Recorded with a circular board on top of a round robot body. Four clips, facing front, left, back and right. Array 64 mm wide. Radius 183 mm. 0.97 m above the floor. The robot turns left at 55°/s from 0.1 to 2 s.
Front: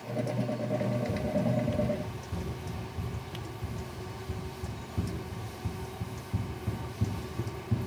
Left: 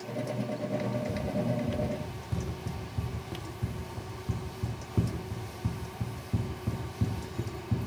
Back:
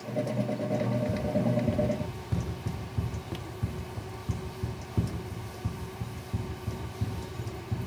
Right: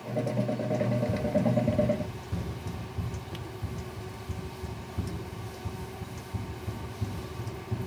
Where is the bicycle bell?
I don't hear a bicycle bell.